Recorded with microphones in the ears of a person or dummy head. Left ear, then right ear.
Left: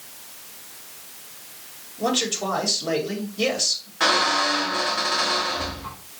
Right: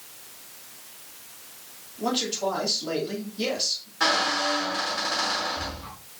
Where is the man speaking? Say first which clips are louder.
Left 3 dB; 55° left (ahead or behind), 1.9 m.